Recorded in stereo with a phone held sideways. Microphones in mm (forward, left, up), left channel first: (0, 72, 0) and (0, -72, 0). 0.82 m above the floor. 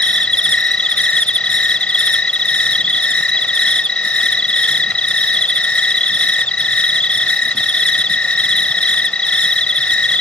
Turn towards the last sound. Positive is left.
turn(degrees=10)  # may be behind; listen again after turning